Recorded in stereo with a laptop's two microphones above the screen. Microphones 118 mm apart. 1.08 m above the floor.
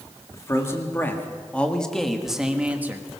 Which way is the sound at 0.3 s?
25° left (ahead or behind).